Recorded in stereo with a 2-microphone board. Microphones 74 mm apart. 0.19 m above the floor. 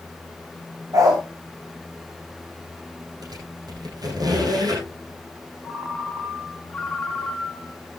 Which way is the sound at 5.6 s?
10° left (ahead or behind).